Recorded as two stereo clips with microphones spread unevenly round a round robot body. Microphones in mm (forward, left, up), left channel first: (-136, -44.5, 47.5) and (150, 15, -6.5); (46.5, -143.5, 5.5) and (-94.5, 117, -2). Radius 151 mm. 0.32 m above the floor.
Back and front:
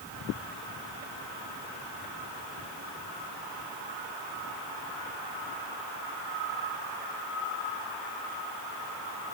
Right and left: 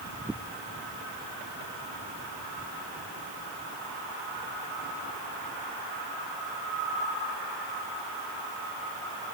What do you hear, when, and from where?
Only background noise.